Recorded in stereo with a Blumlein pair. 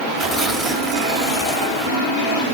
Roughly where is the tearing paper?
Ahead.